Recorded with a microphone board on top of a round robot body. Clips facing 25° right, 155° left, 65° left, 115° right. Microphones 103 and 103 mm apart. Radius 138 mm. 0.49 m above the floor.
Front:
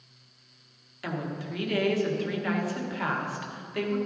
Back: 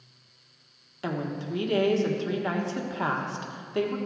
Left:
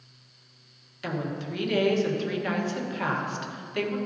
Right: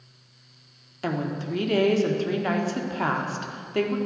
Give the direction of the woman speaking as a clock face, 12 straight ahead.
5 o'clock.